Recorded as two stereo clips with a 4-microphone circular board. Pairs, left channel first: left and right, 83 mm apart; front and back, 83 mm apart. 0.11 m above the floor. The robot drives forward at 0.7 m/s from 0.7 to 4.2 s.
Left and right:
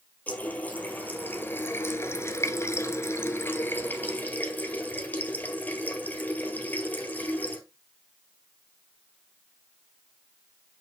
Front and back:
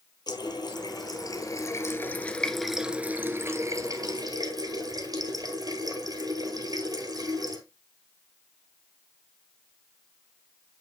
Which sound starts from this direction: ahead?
A running tap, at 0.3 s.